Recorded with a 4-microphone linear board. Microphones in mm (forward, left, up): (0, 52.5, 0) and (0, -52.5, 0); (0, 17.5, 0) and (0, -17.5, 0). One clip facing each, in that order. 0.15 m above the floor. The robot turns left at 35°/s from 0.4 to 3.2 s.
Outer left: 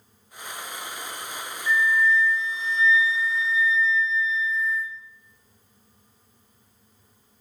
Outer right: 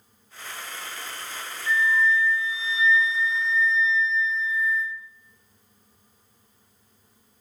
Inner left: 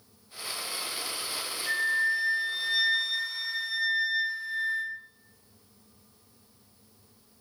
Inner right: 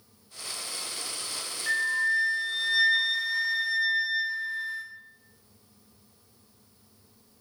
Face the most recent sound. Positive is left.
turn(degrees=175)